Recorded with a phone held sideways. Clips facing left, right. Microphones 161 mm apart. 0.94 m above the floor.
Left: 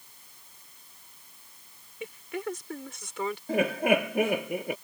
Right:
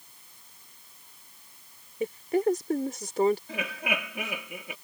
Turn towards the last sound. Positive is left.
turn(degrees=50)  # may be behind; listen again after turning